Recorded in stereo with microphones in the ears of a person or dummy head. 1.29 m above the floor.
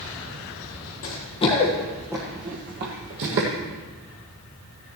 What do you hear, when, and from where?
1.0 s running footsteps: 35° left (ahead or behind), 1.8 m; by 3.5 s 55° right (ahead or behind), 2 m